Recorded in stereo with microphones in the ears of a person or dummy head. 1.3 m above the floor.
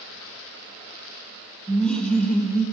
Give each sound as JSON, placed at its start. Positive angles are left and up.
{"t": 1.7, "sound": "laughter", "side_deg": 5, "distance_m": 1.0}